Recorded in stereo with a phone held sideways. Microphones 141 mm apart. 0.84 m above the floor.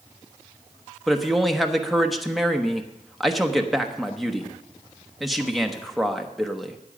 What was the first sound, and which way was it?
A man speaking, centre (ahead or behind).